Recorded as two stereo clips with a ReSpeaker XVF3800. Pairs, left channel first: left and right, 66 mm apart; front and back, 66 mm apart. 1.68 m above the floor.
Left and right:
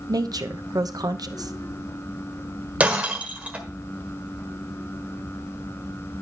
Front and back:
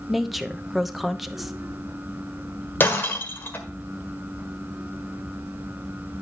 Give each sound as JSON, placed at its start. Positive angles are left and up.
{"t": 0.1, "sound": "a woman speaking", "azimuth_deg": -95, "distance_m": 0.8}
{"t": 2.8, "sound": "breaking glass", "azimuth_deg": -35, "distance_m": 1.7}